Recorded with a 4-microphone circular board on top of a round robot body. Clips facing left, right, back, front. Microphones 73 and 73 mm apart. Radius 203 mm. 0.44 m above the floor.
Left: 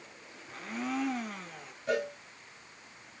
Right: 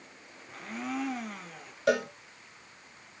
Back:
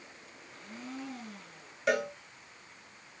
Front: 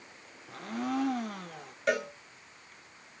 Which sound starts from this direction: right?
A cowbell, at 1.9 s.